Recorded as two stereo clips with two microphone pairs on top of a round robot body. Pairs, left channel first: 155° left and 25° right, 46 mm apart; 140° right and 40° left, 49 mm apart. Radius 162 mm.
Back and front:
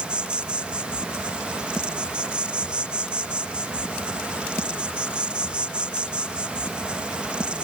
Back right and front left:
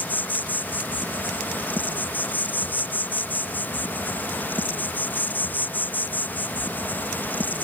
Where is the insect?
90° right.